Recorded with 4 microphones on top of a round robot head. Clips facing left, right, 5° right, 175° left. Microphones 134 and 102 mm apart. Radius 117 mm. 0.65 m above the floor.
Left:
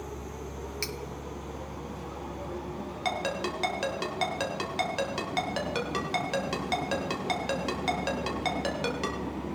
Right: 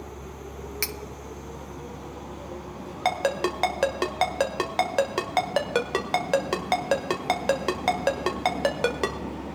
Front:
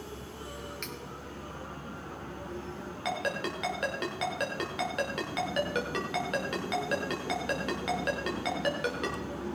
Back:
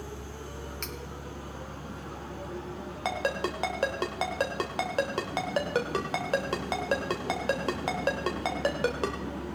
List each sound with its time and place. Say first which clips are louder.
0.8 s cutlery clinking: right 1 dB, back 1 dB; 130° right, 0.5 m
3.0 s a ringtone: right 7 dB, back 3 dB; 125° right, 1.4 m